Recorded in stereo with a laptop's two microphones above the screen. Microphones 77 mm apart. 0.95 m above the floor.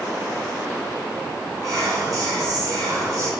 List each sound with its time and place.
1.6 s whispering: 50° right (ahead or behind), 1.6 m